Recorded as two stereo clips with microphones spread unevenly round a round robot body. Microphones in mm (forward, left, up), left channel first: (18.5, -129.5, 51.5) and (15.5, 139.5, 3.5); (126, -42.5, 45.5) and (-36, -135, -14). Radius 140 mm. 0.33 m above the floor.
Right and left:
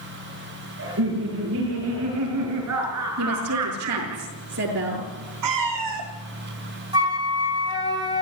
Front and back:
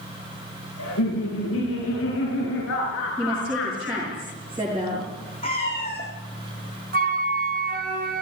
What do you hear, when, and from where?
0.8 s laughter: 45° left, 7 m; by 4.2 s 90° left, 4 m
3.2 s a woman speaking: 135° left, 6.5 m
5.4 s a cat meowing: 100° left, 3.5 m
6.9 s a flute: 165° left, 2 m